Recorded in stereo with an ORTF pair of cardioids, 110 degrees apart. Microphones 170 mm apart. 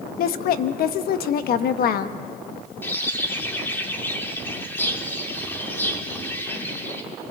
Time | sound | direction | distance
0.2 | a woman speaking | 60° left | 1.2 m
2.8 | a bird | 10° left | 2.5 m